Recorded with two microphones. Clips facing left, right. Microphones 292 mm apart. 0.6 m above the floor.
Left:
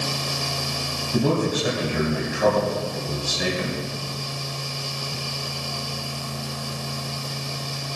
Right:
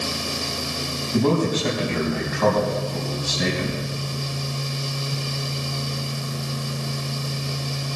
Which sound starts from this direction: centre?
A man speaking, at 1.1 s.